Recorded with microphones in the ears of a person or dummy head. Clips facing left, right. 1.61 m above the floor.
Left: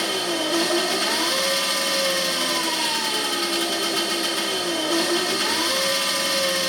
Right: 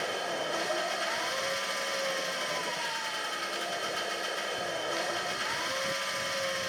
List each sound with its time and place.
0.0 s an engine running: 75° left (ahead or behind)